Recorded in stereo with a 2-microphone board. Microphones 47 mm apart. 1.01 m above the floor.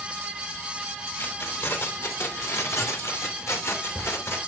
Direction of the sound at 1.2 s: 55° left (ahead or behind).